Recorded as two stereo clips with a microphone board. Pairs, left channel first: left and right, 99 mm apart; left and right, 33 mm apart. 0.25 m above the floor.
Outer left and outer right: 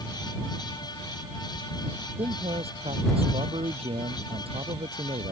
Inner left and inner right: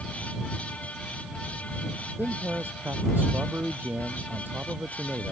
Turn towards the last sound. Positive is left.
turn(degrees=-75)  # may be behind; listen again after turning